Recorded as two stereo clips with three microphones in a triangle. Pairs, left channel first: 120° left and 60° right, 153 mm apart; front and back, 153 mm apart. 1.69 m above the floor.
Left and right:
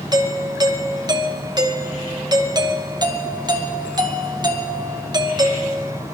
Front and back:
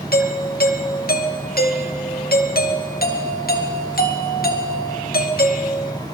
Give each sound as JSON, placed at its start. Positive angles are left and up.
{"t": 0.1, "sound": "a doorbell", "azimuth_deg": 5, "distance_m": 2.0}